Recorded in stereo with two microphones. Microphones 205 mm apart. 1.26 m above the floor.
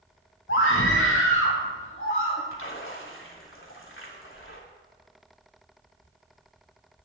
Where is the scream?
80° left, 1.4 m; by 2.4 s 75° left (ahead or behind), 3 m.